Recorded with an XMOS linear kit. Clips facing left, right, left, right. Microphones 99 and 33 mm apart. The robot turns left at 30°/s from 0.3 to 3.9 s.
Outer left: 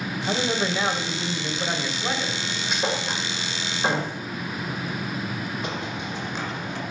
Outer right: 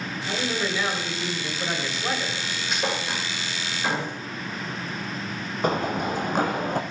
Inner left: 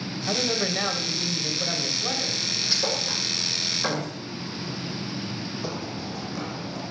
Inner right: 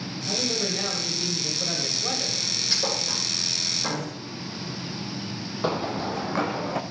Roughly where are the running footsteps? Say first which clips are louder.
Outer right 6 dB, inner right 6 dB; right.